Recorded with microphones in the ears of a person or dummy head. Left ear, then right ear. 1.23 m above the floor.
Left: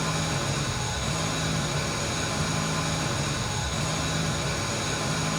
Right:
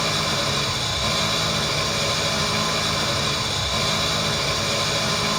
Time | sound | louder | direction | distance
0.0 | an engine running | right 7 dB | 55° right (ahead or behind) | 1.8 m